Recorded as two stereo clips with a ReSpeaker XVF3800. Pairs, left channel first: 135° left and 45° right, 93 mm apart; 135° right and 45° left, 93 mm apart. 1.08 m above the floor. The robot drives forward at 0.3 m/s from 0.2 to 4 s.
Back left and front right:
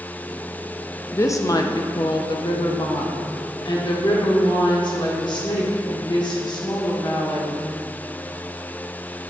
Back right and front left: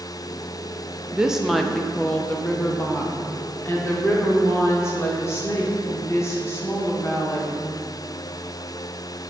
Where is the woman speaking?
115° left, 0.5 m; by 7.5 s 165° left, 1.1 m.